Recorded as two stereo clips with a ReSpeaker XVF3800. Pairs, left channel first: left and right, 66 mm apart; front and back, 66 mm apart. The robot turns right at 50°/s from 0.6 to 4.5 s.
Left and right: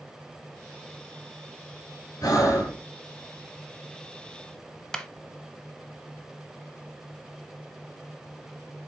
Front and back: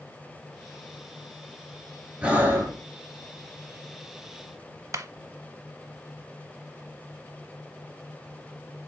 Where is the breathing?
110° left, 2 m; by 2.8 s 140° left, 2 m.